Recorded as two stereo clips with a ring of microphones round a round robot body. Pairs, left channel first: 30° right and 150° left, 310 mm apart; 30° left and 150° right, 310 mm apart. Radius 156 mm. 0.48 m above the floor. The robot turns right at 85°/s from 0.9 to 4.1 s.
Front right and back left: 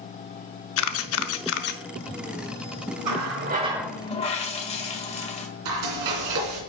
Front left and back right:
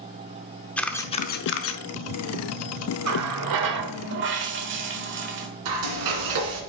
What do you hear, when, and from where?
0.8 s a camera shutter: 55° right, 0.6 m; by 1.8 s 25° left, 0.6 m
3.0 s a running tap: 170° left, 1.2 m; by 5.5 s 100° right, 1.2 m
5.7 s frying: straight behind, 2.5 m